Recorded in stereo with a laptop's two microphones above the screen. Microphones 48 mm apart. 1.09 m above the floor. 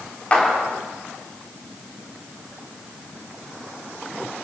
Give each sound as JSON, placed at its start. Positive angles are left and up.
{"t": 0.3, "sound": "a clap", "side_deg": 25, "distance_m": 3.0}